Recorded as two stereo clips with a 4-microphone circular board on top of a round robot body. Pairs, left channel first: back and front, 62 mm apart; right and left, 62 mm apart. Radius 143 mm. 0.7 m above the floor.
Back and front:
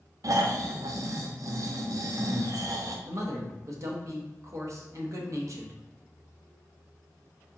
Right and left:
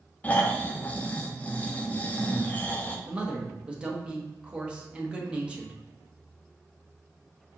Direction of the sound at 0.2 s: 25° right.